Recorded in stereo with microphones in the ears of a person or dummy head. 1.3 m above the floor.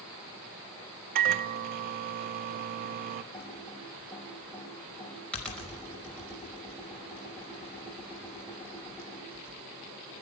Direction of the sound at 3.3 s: 5° left (ahead or behind).